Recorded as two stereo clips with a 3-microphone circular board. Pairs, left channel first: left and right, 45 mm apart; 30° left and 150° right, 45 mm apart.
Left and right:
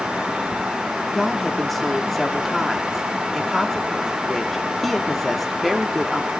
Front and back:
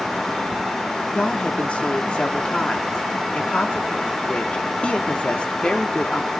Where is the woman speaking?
5° left, 1.0 m.